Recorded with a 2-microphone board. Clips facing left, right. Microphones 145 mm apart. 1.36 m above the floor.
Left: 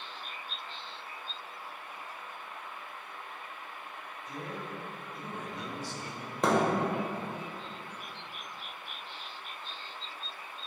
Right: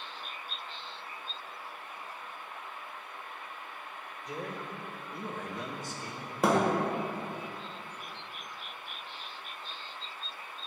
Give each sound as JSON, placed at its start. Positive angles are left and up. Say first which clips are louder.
{"t": 4.2, "sound": "a man speaking", "louder": "right 2 dB", "side_deg": -75, "distance_m": 1.2}
{"t": 6.4, "sound": "a thud", "louder": "right 1 dB", "side_deg": -5, "distance_m": 1.1}